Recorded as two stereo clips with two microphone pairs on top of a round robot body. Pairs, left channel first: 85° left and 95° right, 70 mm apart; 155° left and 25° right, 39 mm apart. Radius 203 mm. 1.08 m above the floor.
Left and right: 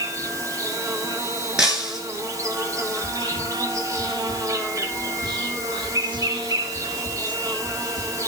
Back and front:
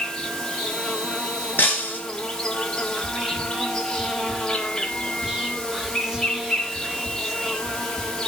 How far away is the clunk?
No clunk in this recording.